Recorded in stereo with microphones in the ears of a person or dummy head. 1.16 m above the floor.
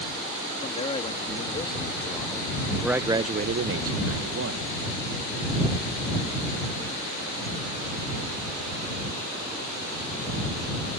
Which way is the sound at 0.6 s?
30° left (ahead or behind).